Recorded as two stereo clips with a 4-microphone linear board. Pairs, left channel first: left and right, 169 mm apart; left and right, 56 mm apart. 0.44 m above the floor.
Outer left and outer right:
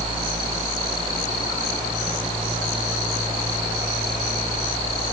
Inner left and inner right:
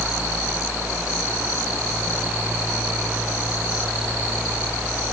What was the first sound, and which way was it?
Only background noise.